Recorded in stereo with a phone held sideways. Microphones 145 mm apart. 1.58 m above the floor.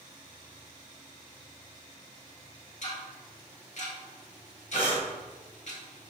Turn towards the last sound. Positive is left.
turn(degrees=-55)  # may be behind; listen again after turning